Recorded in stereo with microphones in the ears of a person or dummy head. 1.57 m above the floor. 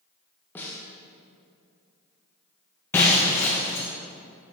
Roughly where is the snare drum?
Centre.